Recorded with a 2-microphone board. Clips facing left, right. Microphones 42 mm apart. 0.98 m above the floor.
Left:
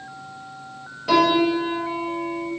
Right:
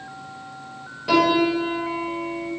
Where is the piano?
5° right (ahead or behind), 0.8 m.